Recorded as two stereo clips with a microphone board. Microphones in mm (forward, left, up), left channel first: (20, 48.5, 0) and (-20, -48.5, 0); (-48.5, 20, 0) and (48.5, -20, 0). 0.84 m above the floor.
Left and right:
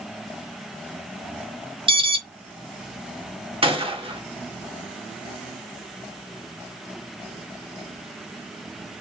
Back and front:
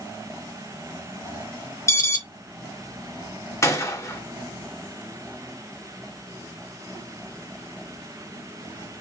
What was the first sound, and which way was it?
An alarm, 140° right.